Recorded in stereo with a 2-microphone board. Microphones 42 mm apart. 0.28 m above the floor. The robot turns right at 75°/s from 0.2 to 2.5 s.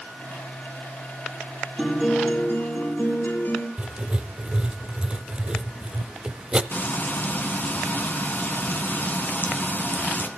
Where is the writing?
20° right (ahead or behind), 0.7 m.